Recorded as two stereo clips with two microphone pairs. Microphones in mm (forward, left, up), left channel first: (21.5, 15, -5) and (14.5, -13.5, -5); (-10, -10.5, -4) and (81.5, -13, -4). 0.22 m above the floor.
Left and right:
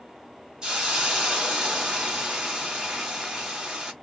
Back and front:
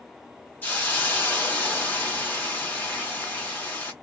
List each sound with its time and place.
0.6 s a hiss: 130° right, 1.4 m